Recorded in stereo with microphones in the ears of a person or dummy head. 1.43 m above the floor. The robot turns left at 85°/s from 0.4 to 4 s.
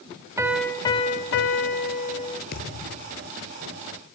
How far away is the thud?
About 7.5 m.